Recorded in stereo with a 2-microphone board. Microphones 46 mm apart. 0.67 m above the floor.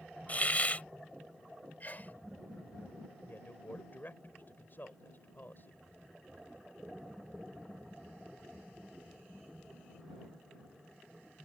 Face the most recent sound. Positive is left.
turn(degrees=50)  # may be behind; listen again after turning